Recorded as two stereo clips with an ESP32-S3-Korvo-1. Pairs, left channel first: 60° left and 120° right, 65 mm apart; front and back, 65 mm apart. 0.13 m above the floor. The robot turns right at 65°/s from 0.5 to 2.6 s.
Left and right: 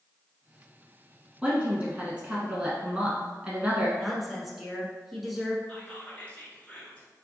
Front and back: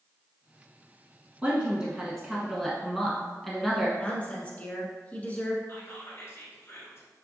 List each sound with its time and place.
1.4 s a woman speaking: 155° right, 1.0 m; by 3.9 s 80° right, 1.0 m
4.0 s a woman speaking: 35° right, 1.1 m
5.7 s whispering: 5° left, 1.4 m